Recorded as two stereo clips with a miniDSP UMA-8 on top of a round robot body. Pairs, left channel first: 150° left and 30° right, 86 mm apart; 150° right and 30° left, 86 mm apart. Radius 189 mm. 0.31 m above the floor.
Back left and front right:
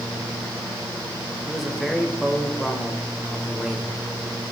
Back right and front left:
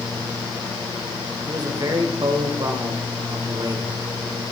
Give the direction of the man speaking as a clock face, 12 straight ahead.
10 o'clock.